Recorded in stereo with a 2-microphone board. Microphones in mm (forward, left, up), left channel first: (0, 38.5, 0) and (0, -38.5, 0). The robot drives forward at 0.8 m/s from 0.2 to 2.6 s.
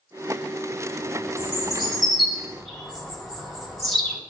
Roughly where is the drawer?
No drawer in this recording.